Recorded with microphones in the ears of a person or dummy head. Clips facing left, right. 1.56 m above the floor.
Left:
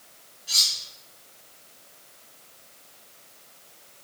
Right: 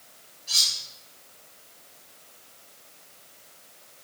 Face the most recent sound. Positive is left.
turn(degrees=25)  # may be behind; listen again after turning